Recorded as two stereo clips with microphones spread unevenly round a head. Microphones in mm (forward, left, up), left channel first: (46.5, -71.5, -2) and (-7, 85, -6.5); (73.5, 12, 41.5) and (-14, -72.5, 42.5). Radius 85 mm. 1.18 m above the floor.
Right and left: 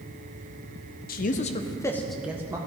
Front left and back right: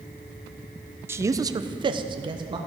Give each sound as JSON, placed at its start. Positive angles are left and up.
{"t": 1.1, "sound": "a man speaking", "azimuth_deg": -70, "distance_m": 0.6}